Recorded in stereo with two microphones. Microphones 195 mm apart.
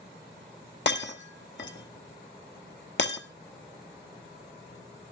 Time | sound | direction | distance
0.9 | breaking glass | 75° left (ahead or behind) | 1.2 m